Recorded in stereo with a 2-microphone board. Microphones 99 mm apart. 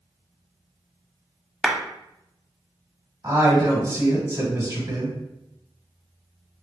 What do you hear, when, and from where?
1.6 s a clap: 5° right (ahead or behind), 0.8 m
3.2 s a woman speaking: 30° right (ahead or behind), 1.6 m